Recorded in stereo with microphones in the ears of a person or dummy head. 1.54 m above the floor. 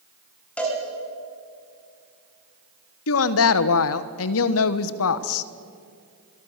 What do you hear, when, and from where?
0.6 s a cowbell: 10° left (ahead or behind), 4.5 m
3.1 s a woman speaking: 85° left, 1.1 m